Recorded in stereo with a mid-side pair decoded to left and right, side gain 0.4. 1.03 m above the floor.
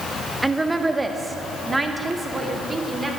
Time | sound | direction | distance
0.4 | a woman speaking | 15° right | 1.3 m